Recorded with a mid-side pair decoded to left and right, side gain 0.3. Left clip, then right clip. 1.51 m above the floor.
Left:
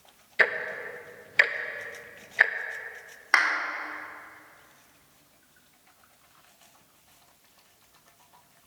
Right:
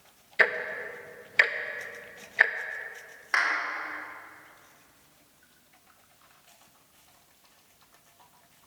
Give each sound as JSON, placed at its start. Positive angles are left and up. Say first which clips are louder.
{"t": 0.4, "sound": "ticking", "louder": "even", "azimuth_deg": 5, "distance_m": 0.9}
{"t": 3.3, "sound": "a clap", "louder": "left 3 dB", "azimuth_deg": 70, "distance_m": 3.5}